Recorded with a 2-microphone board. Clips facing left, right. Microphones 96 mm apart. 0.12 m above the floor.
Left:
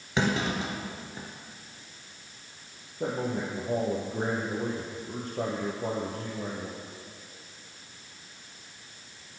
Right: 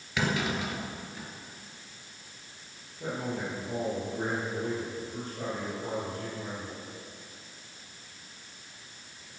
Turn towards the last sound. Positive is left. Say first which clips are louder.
# left 3 dB
turn(degrees=45)  # may be behind; listen again after turning